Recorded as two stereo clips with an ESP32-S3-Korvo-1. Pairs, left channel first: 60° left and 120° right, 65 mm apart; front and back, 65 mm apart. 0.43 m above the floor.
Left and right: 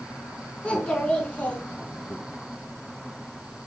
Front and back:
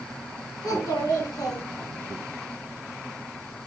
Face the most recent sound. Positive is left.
turn(degrees=-5)